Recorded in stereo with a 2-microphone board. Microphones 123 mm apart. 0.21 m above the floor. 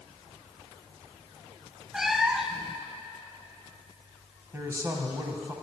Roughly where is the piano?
No piano in this recording.